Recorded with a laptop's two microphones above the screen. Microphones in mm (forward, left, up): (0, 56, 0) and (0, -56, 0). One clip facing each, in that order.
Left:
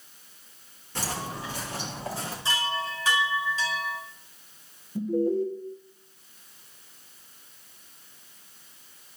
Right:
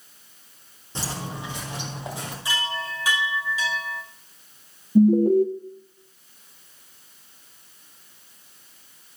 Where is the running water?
No running water in this recording.